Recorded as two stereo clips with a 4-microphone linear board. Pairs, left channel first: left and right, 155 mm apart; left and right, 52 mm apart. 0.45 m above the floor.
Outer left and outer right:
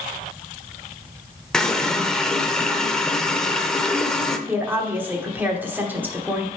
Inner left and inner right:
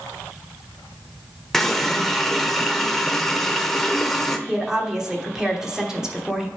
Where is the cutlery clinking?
No cutlery clinking in this recording.